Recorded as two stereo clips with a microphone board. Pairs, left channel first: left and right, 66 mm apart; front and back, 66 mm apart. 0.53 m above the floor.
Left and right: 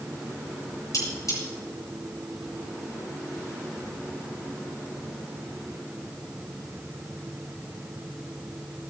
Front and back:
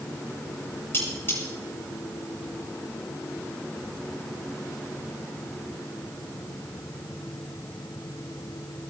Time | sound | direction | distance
0.9 | cutlery clinking | 55° left | 6.5 m